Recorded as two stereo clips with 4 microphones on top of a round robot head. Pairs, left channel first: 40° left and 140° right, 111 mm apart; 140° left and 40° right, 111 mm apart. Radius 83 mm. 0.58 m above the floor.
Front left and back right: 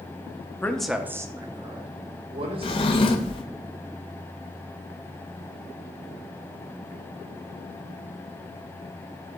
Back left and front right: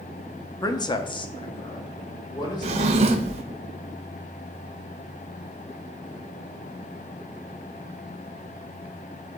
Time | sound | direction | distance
0.6 | a man speaking | 100° left | 0.8 m
2.6 | a drawer | 5° right | 0.5 m